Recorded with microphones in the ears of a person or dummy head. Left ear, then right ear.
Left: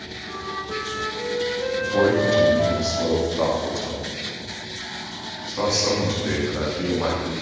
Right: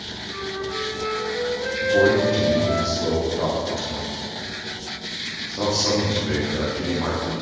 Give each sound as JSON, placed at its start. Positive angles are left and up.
{"t": 0.3, "sound": "a flute", "side_deg": 60, "distance_m": 4.0}
{"t": 1.8, "sound": "a man speaking", "side_deg": 60, "distance_m": 3.0}